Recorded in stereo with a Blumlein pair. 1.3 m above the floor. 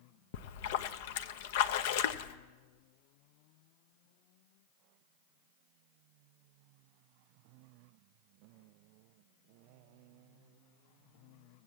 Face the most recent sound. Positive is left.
turn(degrees=50)